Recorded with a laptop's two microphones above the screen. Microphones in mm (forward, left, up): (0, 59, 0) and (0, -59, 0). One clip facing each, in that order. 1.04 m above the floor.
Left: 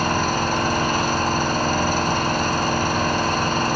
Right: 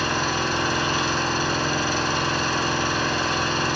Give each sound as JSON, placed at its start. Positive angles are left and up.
{"t": 0.0, "sound": "an engine running", "side_deg": 50, "distance_m": 1.8}